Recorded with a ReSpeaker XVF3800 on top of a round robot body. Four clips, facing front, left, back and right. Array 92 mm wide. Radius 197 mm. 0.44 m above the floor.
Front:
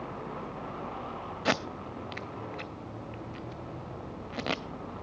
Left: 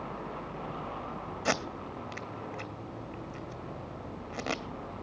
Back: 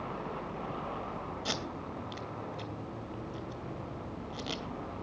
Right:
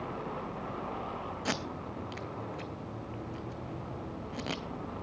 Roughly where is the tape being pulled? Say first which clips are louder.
Left 6 dB, front 7 dB; ahead left.